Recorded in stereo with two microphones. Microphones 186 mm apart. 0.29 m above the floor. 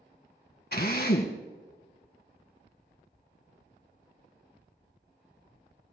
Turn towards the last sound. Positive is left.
turn(degrees=60)  # may be behind; listen again after turning